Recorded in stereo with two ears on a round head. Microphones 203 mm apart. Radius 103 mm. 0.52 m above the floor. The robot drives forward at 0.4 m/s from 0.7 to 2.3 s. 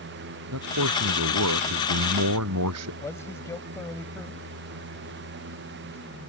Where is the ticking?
I don't hear ticking.